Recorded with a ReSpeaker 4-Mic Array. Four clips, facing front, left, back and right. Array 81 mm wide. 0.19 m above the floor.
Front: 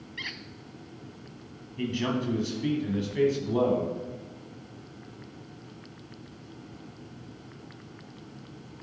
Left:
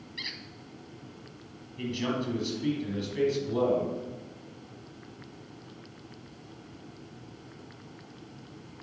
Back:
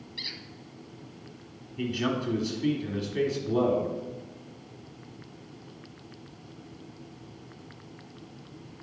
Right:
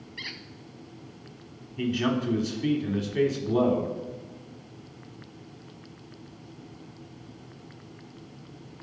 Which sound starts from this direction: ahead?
A squeak, at 0.2 s.